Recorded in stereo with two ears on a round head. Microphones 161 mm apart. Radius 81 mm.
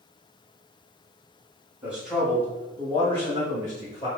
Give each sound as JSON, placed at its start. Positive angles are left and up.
{"t": 1.8, "sound": "a man speaking", "side_deg": -10, "distance_m": 1.0}